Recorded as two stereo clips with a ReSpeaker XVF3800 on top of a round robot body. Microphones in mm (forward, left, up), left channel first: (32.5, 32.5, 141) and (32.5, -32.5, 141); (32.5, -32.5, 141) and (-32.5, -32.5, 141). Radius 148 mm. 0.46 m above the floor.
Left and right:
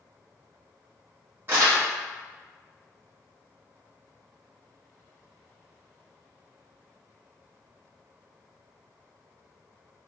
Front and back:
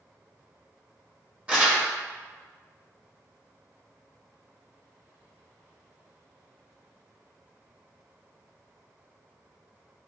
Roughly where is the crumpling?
Behind right.